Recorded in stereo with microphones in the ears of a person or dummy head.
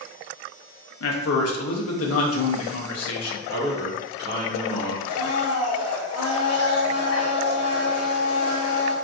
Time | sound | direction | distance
1.0 | a man speaking | 65° left (ahead or behind) | 0.5 m
3.5 | a man speaking | 60° right (ahead or behind) | 1.4 m
5.1 | a blender | 70° left (ahead or behind) | 0.6 m